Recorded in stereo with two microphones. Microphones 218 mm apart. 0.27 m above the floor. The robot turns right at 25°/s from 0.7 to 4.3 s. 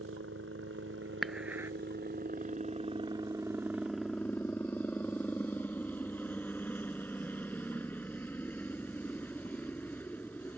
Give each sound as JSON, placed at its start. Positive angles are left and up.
{"t": 0.0, "sound": "a helicopter", "azimuth_deg": -80}
{"t": 1.2, "sound": "dishes clattering", "side_deg": 0}